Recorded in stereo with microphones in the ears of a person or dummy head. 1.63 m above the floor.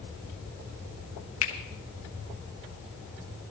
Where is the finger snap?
35° left (ahead or behind), 1.0 m.